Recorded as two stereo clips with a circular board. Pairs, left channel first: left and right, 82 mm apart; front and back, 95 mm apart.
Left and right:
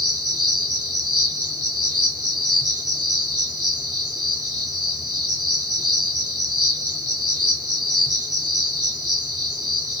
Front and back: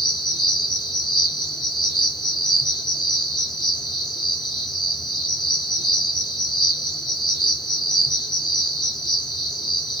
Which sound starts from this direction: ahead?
An insect, at 0.0 s.